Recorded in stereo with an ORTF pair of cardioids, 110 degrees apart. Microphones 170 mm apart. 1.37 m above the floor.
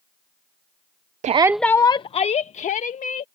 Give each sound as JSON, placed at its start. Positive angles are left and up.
{"t": 1.2, "sound": "a shout", "azimuth_deg": -45}